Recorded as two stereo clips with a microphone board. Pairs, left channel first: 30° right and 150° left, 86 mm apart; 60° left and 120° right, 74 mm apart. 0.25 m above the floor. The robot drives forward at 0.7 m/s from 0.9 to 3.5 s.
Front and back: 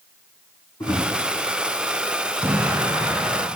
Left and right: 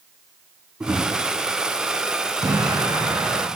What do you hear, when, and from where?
0.8 s a drawer: 55° right, 5 m
2.4 s an explosion: 145° right, 1.4 m; by 3.5 s 155° right, 2.0 m